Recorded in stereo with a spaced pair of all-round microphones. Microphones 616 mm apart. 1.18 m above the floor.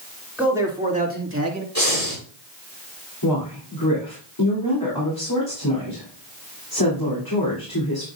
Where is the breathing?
25° left (ahead or behind), 4 m.